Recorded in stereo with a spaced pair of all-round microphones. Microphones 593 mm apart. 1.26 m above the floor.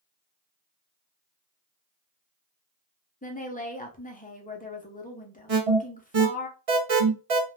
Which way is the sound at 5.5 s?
65° right (ahead or behind).